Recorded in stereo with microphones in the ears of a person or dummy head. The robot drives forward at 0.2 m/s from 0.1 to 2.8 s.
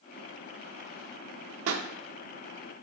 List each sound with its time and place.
1.7 s a pop: 80° right, 0.6 m; by 1.9 s 85° right, 0.6 m